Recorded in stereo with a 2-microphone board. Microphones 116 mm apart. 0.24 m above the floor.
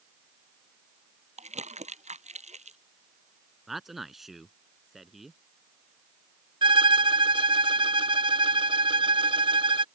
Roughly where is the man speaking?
Centre.